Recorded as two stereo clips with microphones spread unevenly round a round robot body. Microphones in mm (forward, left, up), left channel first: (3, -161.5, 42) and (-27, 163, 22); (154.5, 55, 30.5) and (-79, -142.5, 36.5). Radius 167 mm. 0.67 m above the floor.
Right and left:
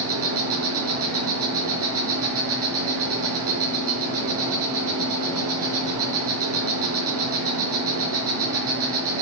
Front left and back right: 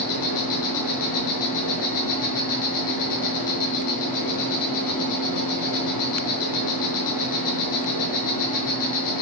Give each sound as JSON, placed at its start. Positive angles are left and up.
{"t": 0.0, "sound": "an insect", "azimuth_deg": 50, "distance_m": 5.0}